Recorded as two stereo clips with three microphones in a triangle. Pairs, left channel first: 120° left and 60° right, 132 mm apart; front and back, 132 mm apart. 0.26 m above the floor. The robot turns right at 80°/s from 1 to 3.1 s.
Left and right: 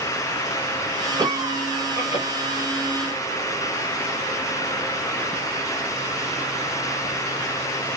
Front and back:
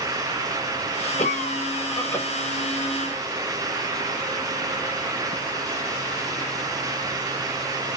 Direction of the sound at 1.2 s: 5° right.